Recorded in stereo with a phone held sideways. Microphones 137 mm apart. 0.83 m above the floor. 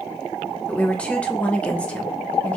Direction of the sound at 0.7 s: 10° left (ahead or behind).